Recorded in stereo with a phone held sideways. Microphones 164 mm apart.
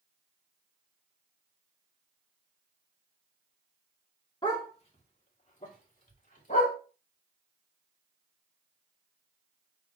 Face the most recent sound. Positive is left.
turn(degrees=55)  # may be behind; listen again after turning